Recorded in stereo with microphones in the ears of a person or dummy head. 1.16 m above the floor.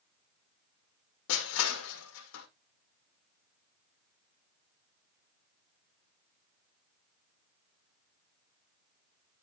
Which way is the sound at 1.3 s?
65° left (ahead or behind).